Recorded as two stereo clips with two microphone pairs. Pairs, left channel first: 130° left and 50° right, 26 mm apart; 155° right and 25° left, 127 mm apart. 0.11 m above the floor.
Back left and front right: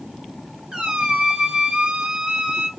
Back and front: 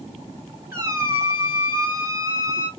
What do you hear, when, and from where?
0.7 s a squeak: 25° right, 1.1 m